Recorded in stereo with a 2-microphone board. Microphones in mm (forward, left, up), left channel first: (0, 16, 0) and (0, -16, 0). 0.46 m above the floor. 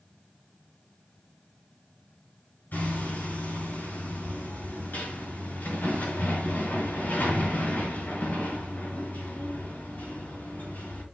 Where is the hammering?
75° left (ahead or behind), 5.5 m.